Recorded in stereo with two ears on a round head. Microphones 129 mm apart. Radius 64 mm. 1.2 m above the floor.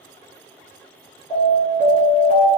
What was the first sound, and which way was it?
An alarm, 55° left (ahead or behind).